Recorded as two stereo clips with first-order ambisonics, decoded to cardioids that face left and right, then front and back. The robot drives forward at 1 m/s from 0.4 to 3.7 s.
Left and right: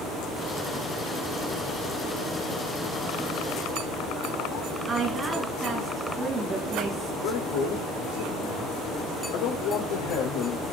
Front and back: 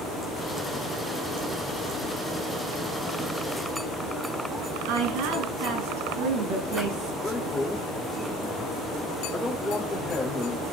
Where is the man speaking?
90° left, 3 m.